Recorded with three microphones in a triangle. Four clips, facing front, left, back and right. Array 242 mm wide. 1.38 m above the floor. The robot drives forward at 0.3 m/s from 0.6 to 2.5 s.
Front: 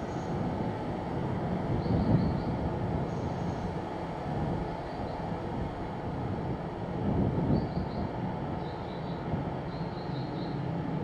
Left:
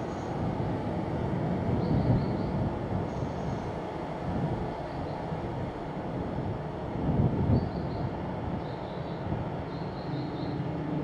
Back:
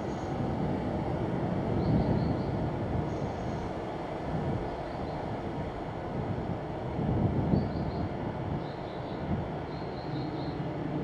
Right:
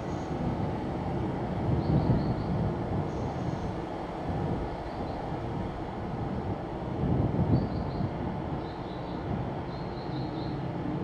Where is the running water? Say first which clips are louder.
Even, even; 135° left, 0.9 m; by 11.0 s 150° left, 1.3 m.